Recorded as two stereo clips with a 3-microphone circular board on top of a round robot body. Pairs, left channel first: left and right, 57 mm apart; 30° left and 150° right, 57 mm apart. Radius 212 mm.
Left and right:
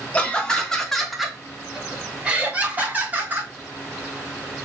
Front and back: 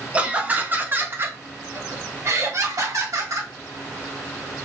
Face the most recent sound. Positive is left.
turn(degrees=-145)